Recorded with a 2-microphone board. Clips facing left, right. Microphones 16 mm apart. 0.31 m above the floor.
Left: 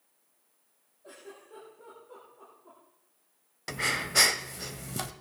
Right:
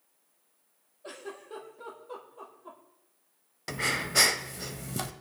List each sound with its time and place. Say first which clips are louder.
1.0 s a giggle: right 6 dB; 75° right (ahead or behind), 5.5 m
3.7 s breathing: even; 5° left (ahead or behind), 0.7 m